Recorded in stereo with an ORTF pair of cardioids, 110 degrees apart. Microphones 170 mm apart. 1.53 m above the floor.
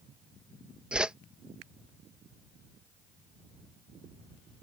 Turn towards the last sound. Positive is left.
turn(degrees=-5)